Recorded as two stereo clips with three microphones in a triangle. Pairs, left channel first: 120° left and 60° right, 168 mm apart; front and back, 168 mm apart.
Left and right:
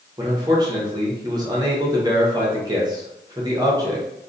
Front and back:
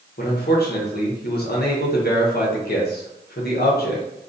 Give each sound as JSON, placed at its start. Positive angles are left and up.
{"t": 0.2, "sound": "a man speaking", "azimuth_deg": 5, "distance_m": 0.8}